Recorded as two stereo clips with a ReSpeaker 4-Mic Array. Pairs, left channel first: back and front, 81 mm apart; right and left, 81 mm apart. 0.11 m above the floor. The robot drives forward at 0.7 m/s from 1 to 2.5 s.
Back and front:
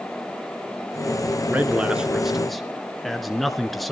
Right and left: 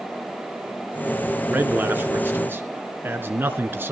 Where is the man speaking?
50° left, 1.8 m; by 3.9 s 95° left, 1.7 m.